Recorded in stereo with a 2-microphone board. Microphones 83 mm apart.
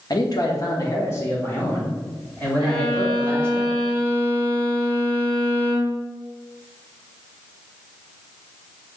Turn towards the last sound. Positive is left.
turn(degrees=70)  # may be behind; listen again after turning